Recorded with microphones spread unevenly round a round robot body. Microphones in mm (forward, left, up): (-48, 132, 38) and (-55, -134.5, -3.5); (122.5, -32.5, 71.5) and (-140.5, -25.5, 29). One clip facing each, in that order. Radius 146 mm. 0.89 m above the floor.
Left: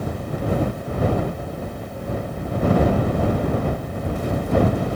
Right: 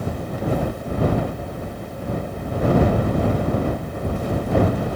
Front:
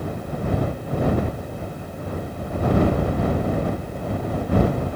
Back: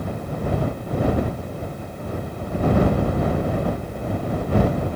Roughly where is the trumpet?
No trumpet in this recording.